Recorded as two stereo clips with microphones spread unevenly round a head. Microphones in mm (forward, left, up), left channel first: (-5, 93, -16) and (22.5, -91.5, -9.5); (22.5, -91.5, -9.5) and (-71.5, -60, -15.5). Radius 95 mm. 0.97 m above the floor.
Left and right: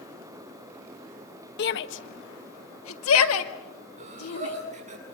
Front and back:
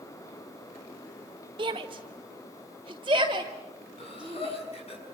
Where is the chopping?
I don't hear chopping.